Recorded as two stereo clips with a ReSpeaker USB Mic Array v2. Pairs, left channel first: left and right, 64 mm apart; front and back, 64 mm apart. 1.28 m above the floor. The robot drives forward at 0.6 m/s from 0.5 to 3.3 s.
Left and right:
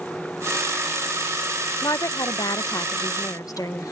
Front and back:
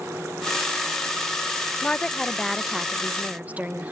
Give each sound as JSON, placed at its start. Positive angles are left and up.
{"t": 1.8, "sound": "a woman speaking", "azimuth_deg": 70}